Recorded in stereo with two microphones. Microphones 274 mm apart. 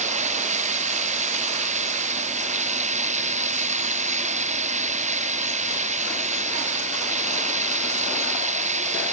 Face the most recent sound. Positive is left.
turn(degrees=-25)  # may be behind; listen again after turning